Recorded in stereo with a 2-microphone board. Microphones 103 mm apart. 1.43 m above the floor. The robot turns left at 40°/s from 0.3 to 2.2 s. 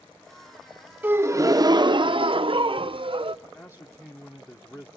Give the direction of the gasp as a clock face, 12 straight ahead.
1 o'clock.